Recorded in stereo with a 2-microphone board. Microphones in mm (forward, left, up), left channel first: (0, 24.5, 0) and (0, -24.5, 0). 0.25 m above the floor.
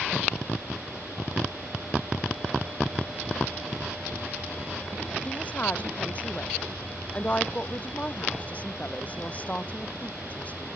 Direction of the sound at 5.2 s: 30° left (ahead or behind).